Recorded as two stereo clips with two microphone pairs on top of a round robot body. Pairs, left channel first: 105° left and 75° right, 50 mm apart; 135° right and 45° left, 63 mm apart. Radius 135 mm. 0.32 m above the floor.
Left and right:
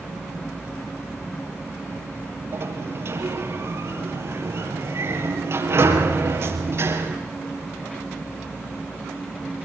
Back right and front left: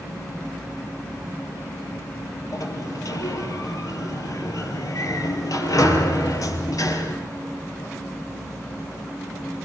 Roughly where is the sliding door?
Right.